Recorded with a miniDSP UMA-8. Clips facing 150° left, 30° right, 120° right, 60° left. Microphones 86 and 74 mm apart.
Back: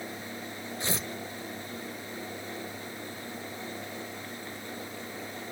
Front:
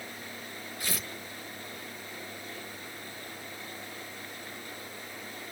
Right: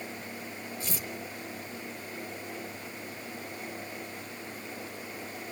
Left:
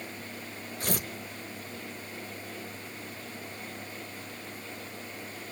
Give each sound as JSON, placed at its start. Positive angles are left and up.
{"t": 0.8, "sound": "tearing paper", "azimuth_deg": 90, "distance_m": 1.0}